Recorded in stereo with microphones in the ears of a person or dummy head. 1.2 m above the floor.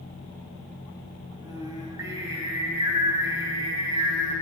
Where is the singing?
20° right (ahead or behind), 3 m.